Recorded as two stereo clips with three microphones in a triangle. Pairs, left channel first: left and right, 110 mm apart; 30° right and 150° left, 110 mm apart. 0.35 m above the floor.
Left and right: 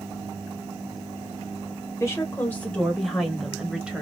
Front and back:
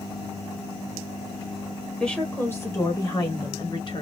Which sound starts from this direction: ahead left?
A woman speaking, at 2.0 s.